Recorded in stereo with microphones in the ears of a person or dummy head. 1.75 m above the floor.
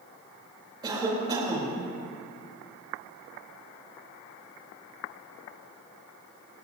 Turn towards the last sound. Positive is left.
turn(degrees=-15)  # may be behind; listen again after turning